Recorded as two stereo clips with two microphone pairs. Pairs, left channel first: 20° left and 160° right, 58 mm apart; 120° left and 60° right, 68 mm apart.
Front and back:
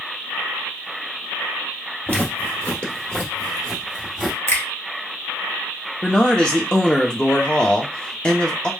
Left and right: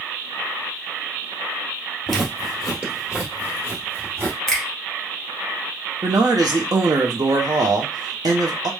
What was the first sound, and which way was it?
Footsteps, 30° left.